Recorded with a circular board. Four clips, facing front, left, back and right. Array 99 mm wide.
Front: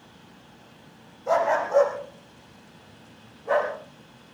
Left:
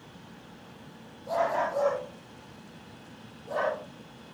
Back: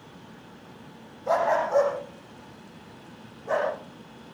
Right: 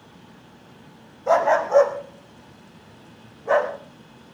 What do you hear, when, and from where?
1.3 s a dog barking: 95° right, 6 m; by 3.7 s 85° right, 9 m